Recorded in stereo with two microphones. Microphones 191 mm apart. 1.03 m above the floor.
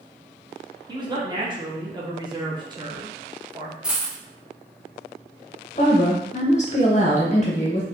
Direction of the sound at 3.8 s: 5° right (ahead or behind).